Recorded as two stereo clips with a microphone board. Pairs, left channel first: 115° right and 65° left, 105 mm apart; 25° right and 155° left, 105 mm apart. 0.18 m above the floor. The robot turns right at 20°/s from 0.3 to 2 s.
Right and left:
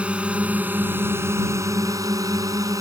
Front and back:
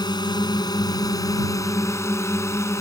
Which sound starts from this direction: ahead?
A drone, at 0.0 s.